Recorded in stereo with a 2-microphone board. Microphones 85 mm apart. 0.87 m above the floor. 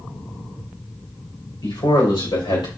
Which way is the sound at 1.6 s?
80° left.